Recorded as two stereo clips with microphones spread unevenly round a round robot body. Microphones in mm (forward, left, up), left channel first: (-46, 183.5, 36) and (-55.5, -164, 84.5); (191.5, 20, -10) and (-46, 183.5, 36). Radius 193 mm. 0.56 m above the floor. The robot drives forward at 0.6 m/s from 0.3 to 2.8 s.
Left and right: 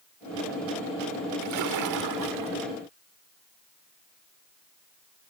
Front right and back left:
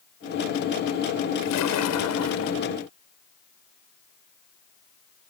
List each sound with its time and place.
1.4 s a splash: 50° right; by 2.6 s 65° right